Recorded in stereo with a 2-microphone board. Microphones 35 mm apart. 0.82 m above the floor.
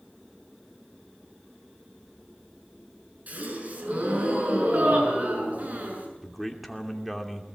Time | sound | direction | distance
3.3 | a gasp | 50° right (ahead or behind) | 6.5 m
6.2 | a man speaking | centre (ahead or behind) | 2.5 m